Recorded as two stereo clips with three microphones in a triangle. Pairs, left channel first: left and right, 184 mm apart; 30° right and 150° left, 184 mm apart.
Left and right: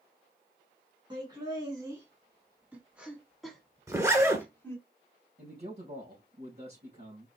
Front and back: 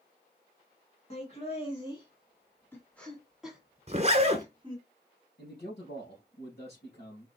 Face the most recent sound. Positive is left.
turn(degrees=-55)